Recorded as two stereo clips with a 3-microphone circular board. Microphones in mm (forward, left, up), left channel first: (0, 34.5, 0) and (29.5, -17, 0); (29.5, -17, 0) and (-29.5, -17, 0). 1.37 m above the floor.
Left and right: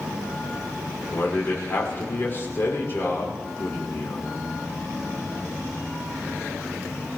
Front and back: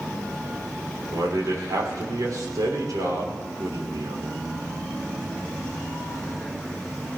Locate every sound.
1.1 s a man speaking: 170° left, 5.5 m